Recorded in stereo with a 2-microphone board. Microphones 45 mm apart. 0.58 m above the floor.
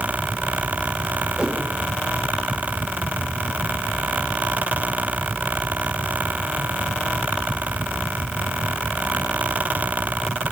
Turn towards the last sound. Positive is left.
turn(degrees=-30)  # may be behind; listen again after turning